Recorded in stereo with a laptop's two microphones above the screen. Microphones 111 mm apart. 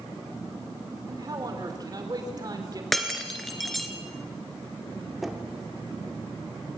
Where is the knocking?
Centre (ahead or behind), 2.5 m.